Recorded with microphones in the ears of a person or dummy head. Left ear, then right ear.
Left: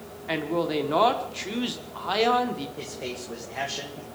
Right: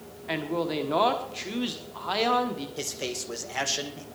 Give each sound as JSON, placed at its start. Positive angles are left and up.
{"t": 0.3, "sound": "a man speaking", "side_deg": 0, "distance_m": 1.4}
{"t": 2.8, "sound": "a man speaking", "side_deg": -70, "distance_m": 2.0}